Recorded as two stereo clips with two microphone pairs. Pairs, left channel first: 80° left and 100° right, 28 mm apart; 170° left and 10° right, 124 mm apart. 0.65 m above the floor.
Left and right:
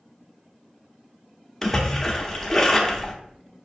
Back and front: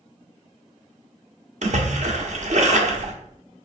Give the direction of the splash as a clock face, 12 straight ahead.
12 o'clock.